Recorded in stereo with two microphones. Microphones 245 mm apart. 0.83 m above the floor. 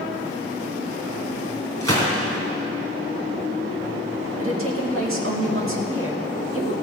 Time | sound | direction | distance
1.8 | a gunshot | 75° right (ahead or behind) | 3 m
4.4 | a woman speaking | 60° right (ahead or behind) | 1.8 m